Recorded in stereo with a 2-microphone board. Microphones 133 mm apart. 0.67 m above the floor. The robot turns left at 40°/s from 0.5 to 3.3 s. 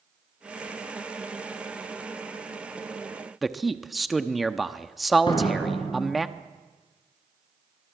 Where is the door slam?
40° left (ahead or behind), 7 m.